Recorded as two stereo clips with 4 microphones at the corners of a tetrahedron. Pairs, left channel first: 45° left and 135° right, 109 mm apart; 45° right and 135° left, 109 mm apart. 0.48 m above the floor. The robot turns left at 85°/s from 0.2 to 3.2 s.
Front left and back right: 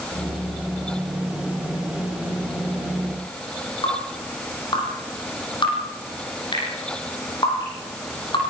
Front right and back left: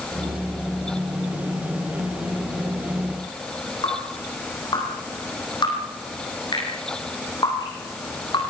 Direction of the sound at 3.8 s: Straight ahead.